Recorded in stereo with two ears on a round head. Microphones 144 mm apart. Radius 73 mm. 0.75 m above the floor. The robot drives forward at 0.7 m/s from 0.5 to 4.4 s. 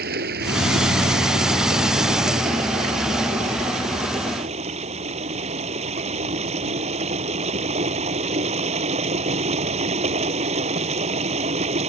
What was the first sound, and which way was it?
Running water, 75° right (ahead or behind).